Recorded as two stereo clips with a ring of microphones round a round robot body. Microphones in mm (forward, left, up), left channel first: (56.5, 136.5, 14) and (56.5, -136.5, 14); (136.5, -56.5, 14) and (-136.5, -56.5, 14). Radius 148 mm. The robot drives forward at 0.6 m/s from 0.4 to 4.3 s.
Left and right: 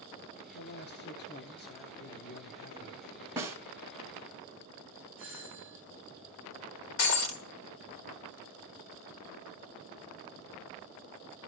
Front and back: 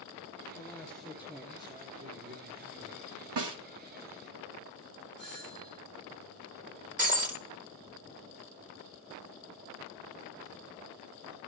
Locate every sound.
0.5 s a man speaking: 70° left, 1.3 m; by 3.3 s 150° left, 1.8 m
3.4 s a snare drum: 170° right, 1.5 m
5.2 s a doorbell: straight behind, 6.5 m
7.0 s breaking glass: 120° left, 1.1 m